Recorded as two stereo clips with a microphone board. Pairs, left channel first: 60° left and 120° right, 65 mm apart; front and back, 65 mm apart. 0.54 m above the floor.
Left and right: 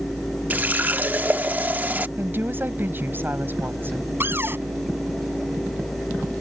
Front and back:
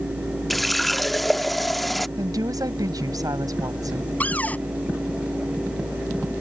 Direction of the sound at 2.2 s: 175° right.